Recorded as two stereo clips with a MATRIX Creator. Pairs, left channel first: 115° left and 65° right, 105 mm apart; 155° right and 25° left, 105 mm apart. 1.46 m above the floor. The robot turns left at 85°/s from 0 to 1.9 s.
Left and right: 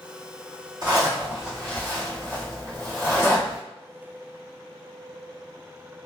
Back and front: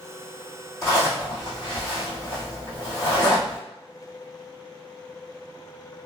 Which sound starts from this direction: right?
A zipper, at 0.8 s.